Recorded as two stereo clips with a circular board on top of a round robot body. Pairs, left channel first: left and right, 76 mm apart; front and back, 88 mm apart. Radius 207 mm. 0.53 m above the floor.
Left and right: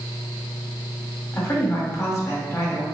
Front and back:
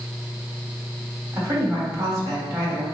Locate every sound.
1.3 s a woman speaking: 130° left, 1.6 m